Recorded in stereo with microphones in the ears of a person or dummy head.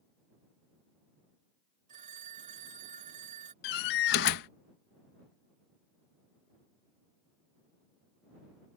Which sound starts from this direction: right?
A phone ringing, at 1.9 s.